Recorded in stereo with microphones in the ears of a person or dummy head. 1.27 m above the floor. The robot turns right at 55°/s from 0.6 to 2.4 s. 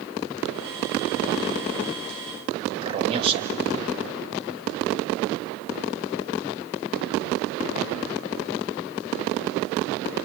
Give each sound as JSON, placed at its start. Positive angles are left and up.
{"t": 2.8, "sound": "a man speaking", "side_deg": -35, "distance_m": 1.9}